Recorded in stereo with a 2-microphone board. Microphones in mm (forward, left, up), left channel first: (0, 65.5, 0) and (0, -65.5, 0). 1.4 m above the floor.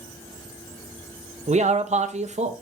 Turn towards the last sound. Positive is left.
turn(degrees=-55)  # may be behind; listen again after turning